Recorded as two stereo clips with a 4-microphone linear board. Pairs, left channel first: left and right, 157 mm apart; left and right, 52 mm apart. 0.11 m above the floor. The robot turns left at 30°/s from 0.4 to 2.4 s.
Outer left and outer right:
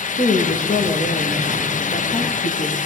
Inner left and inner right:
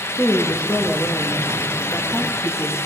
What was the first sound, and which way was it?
A woman speaking, 105° left.